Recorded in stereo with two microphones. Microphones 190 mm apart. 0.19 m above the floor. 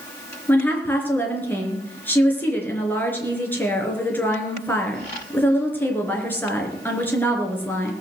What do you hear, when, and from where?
0.5 s a woman speaking: 10° left (ahead or behind), 3 m